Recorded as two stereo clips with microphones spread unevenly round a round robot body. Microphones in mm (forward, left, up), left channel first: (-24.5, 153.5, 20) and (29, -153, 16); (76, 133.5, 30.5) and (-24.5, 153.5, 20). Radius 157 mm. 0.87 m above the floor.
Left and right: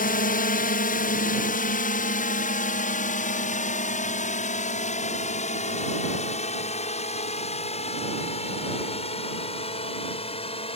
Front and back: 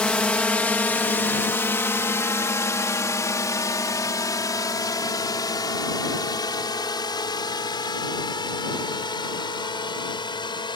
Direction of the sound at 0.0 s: 65° left.